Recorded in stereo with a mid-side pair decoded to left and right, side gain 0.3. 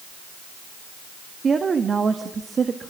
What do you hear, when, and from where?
1.4 s a woman speaking: 55° right, 1.8 m